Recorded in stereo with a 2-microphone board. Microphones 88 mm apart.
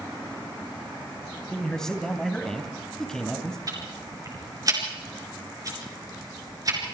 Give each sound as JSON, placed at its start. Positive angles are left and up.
{"t": 1.5, "sound": "a man speaking", "side_deg": 10, "distance_m": 3.0}
{"t": 3.7, "sound": "ticking", "side_deg": -40, "distance_m": 4.5}